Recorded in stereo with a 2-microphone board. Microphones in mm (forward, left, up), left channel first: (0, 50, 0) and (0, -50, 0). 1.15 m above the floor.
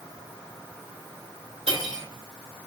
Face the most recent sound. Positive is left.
turn(degrees=-80)